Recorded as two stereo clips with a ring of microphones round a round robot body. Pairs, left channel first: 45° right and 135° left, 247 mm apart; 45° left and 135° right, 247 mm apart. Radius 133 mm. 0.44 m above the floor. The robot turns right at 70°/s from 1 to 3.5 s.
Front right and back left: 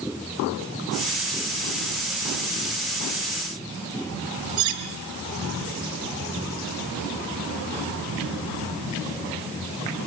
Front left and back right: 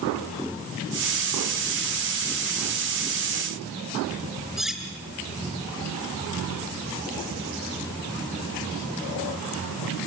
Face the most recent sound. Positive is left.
turn(degrees=135)